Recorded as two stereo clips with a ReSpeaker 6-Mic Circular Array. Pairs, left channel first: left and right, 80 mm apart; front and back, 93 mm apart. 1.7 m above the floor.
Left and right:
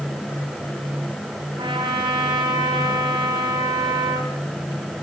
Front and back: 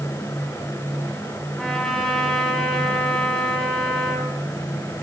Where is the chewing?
I don't hear chewing.